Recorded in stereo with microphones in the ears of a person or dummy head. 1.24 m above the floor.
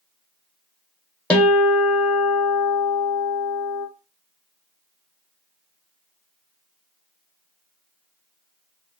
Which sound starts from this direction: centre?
A guitar, at 1.3 s.